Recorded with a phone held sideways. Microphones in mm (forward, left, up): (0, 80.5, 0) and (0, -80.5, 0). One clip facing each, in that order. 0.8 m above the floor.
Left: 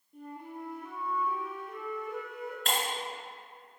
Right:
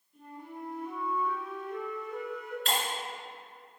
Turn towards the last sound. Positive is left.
turn(degrees=50)  # may be behind; listen again after turning